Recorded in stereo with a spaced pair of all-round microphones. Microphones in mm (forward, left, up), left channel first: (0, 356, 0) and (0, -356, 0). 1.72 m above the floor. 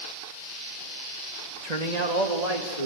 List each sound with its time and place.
1.6 s a man speaking: 65° right (ahead or behind), 2.5 m; by 2.9 s 55° right (ahead or behind), 4 m